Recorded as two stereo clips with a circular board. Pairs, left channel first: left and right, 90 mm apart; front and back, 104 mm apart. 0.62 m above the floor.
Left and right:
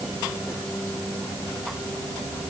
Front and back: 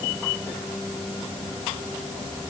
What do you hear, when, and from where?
Only background noise.